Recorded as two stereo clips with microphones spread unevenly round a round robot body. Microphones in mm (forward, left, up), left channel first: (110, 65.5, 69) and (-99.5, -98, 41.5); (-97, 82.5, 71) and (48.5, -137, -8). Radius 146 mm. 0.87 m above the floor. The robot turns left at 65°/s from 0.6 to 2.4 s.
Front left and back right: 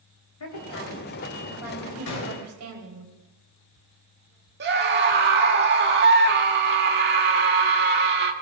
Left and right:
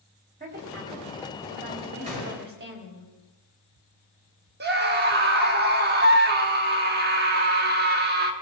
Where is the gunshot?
15° left, 4 m; by 2.5 s 5° right, 4 m.